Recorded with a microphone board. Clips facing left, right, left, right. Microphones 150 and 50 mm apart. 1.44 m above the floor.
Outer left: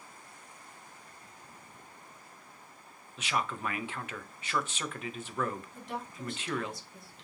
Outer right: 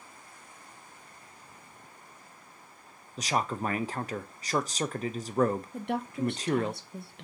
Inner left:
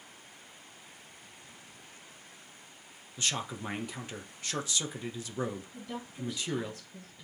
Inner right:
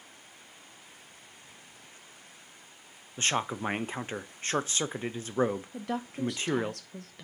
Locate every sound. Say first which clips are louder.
3.2 s a man speaking: outer right 4 dB, inner right 5 dB; 40° right (ahead or behind), 0.5 m
5.7 s a woman speaking: outer right 9 dB, inner right 7 dB; 65° right (ahead or behind), 0.8 m